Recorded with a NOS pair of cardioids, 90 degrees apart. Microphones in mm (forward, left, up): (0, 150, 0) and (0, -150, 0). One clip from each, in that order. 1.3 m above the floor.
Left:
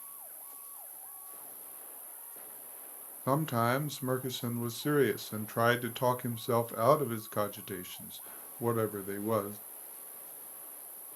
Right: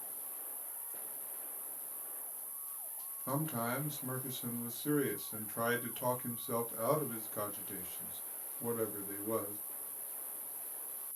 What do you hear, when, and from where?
0.0 s an insect: 65° right, 3 m
3.3 s a man speaking: 55° left, 0.9 m